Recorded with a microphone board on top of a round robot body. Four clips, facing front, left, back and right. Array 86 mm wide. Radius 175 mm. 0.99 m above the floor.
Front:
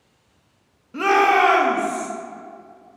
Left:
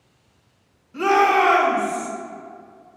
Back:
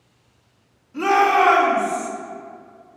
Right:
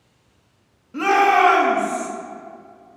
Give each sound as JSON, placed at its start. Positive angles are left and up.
{"t": 0.9, "sound": "a shout", "azimuth_deg": -30, "distance_m": 1.8}